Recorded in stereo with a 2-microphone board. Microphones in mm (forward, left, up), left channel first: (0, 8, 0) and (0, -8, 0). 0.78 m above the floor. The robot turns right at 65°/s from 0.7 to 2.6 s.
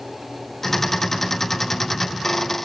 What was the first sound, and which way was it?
Only background noise.